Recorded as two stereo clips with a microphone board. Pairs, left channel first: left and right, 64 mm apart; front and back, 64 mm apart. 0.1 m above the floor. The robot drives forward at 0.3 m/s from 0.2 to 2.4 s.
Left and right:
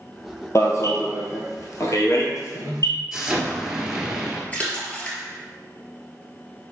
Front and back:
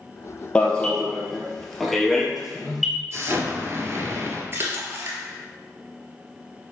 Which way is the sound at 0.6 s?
70° left.